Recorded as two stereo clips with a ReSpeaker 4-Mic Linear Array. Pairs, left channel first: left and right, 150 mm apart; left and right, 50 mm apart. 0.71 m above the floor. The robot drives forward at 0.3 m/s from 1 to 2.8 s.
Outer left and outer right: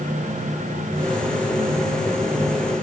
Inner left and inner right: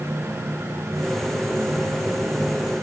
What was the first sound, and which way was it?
Only background noise.